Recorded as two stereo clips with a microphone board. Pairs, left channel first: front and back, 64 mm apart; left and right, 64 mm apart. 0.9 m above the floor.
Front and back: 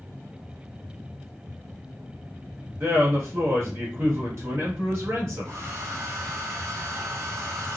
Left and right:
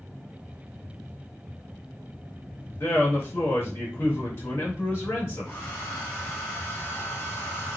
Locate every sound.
2.8 s a man speaking: 140° left, 1.5 m
5.5 s a hair dryer: 145° left, 1.3 m